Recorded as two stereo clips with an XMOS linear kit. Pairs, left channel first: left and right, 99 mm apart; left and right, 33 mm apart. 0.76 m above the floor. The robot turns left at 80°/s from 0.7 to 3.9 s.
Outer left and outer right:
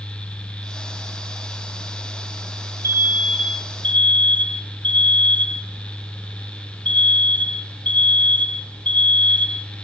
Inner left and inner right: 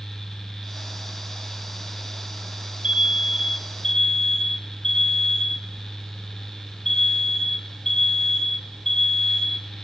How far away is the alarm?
About 1.1 m.